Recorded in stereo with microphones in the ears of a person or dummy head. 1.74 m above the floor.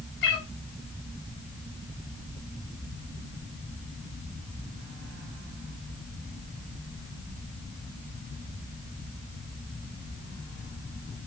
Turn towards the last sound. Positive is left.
turn(degrees=65)  # may be behind; listen again after turning